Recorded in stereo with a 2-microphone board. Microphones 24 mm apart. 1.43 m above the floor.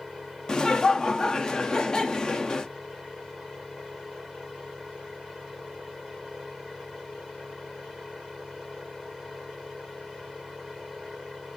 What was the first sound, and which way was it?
Laughter, 30° left (ahead or behind).